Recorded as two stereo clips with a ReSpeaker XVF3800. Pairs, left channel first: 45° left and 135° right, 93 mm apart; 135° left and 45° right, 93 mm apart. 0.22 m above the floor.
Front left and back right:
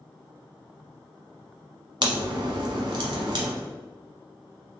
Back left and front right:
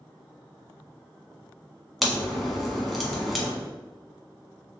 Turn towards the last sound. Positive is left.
turn(degrees=-135)